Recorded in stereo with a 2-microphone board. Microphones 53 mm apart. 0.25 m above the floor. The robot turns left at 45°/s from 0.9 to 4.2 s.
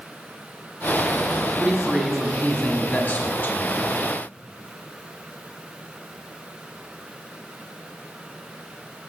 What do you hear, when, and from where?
1.6 s a man speaking: 160° right, 1.4 m; by 3.9 s 95° left, 1.4 m